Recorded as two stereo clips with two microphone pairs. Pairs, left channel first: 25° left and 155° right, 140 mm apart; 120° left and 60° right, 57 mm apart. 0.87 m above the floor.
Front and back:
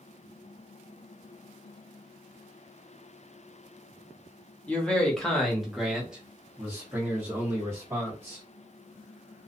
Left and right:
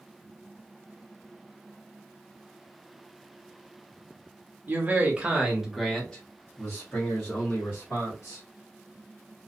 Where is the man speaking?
50° right, 1.0 m; by 8.4 s 135° left, 1.6 m.